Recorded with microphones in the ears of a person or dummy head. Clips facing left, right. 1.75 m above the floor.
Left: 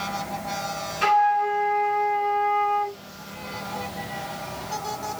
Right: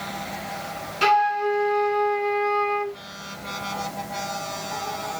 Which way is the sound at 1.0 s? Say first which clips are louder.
Even; 55° right (ahead or behind).